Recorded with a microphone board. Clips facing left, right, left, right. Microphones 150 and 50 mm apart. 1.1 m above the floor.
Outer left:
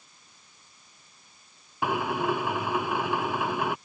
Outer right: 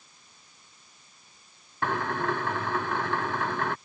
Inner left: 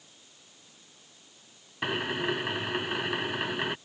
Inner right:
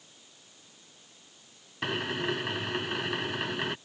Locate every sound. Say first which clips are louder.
1.8 s a drill: outer left 2 dB, inner left 1 dB; 10° left (ahead or behind)